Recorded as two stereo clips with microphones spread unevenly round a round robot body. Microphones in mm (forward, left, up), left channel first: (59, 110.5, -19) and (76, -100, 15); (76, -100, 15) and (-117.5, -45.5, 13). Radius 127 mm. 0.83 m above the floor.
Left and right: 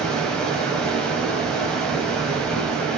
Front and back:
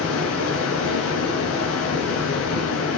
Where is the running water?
10° left, 3.5 m.